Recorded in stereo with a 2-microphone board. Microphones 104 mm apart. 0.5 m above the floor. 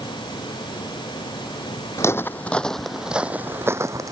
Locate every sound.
2.0 s footsteps: 30° left (ahead or behind); by 4.1 s 35° right (ahead or behind)